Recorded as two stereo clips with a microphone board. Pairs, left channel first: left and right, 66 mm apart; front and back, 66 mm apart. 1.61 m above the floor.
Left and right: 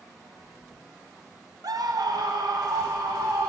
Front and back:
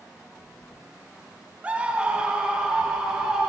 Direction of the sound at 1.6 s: 110° right.